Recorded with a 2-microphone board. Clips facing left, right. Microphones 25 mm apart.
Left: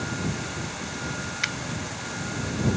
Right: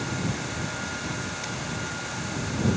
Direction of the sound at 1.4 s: 65° left (ahead or behind).